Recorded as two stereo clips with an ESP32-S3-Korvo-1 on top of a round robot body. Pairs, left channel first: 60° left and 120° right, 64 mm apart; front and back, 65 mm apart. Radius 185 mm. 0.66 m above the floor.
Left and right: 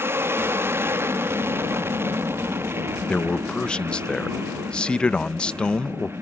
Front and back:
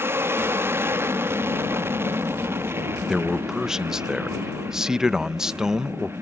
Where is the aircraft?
150° right.